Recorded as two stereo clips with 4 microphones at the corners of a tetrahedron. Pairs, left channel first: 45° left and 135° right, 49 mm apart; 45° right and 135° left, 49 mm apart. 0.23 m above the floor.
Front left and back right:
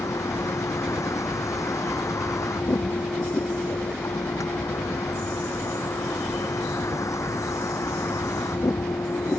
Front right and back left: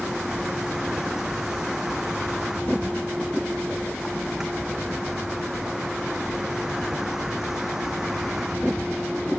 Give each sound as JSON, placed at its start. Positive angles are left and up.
{"t": 0.0, "sound": "a vehicle", "azimuth_deg": 55}